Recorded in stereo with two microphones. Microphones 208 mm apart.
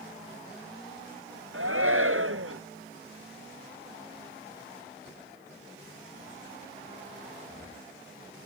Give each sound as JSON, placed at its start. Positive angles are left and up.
{"t": 1.5, "sound": "a shout", "side_deg": -85}